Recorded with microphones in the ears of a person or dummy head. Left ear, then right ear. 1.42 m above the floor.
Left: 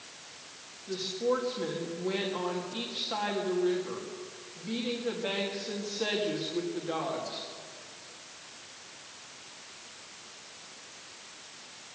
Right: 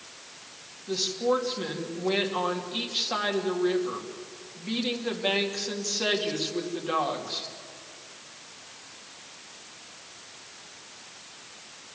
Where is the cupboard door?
I don't hear a cupboard door.